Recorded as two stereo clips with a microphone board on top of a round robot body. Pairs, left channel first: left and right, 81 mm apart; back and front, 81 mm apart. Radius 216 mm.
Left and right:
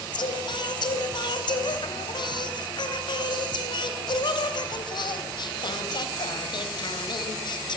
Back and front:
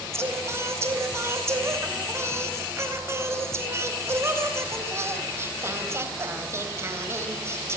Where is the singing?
60° left, 3.5 m.